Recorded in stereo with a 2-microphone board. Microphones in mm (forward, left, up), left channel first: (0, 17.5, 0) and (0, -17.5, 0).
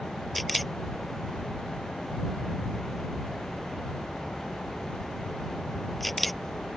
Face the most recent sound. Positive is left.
turn(degrees=0)  # may be behind; listen again after turning